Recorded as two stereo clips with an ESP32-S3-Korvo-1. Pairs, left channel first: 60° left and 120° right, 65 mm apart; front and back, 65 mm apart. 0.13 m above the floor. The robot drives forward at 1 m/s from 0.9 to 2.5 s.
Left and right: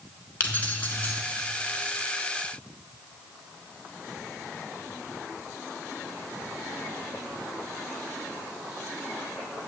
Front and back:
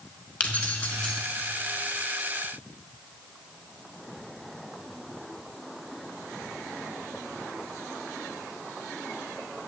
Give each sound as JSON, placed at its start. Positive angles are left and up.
{"t": 0.4, "sound": "keys jangling", "azimuth_deg": 40, "distance_m": 1.2}